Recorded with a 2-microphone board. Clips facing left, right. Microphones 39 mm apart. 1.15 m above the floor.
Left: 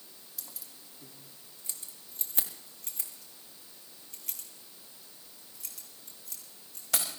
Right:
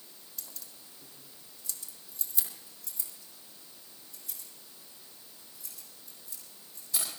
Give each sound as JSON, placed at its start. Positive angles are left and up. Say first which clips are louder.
{"t": 0.4, "sound": "keys jangling", "louder": "even", "side_deg": 5, "distance_m": 1.5}